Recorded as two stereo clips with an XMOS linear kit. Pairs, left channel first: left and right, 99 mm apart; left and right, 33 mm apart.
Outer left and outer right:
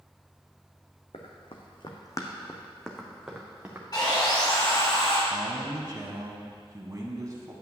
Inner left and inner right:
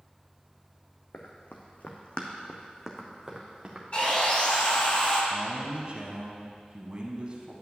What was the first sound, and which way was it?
Running footsteps, 75° left (ahead or behind).